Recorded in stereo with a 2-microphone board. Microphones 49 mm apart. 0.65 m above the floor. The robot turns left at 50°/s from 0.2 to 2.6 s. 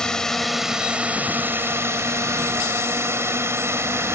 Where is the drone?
15° left; by 4.2 s 105° right.